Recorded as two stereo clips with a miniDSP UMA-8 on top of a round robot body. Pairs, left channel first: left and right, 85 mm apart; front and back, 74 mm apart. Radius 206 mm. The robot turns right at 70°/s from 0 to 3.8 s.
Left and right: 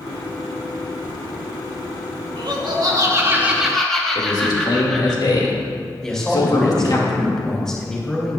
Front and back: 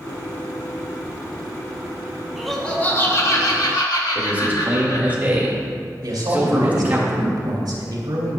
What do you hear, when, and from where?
2.4 s laughter: 95° right, 2.5 m; by 5.2 s 5° left, 2.5 m
4.2 s a man speaking: 115° left, 2.5 m
6.0 s a man speaking: 170° left, 3 m